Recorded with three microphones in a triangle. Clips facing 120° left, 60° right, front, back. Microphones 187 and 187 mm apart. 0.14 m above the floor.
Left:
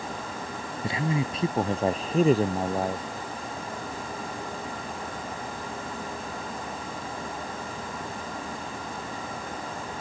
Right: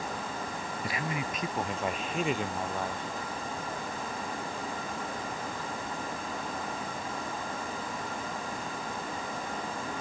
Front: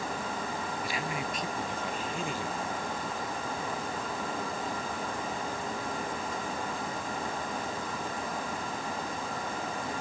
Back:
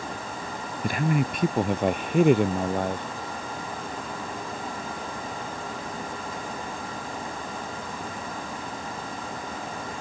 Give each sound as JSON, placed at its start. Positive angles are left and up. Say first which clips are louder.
{"t": 0.8, "sound": "a man speaking", "louder": "left 8 dB, back 9 dB", "azimuth_deg": 175}